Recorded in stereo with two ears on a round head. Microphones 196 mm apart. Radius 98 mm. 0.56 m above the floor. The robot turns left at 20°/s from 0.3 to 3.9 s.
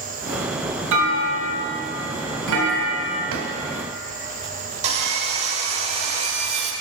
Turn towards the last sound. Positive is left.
turn(degrees=-30)  # may be behind; listen again after turning